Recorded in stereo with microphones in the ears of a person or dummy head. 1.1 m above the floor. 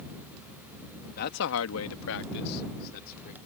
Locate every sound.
1.2 s a man speaking: 55° left (ahead or behind); by 3.4 s 45° left (ahead or behind)